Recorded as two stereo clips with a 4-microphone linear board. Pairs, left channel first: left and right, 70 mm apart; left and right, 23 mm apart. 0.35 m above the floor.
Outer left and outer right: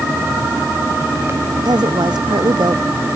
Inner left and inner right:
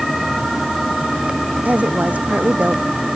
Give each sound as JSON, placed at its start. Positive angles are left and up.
{"t": 1.6, "sound": "a woman speaking", "side_deg": -80}